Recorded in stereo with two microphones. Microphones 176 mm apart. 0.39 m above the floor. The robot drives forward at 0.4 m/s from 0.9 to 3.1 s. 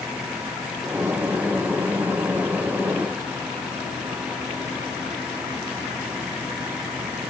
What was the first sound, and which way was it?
Only background noise.